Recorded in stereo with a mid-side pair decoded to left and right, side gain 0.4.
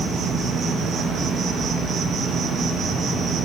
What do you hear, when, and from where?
0.0 s an insect: 70° right, 0.8 m